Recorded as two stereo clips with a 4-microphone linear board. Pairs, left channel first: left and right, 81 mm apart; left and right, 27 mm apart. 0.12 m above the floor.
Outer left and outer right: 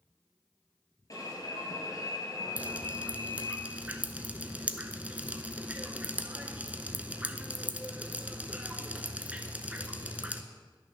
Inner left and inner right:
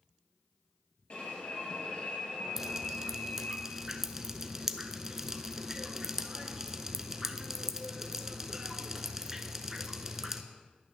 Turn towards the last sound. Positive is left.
turn(degrees=-15)  # may be behind; listen again after turning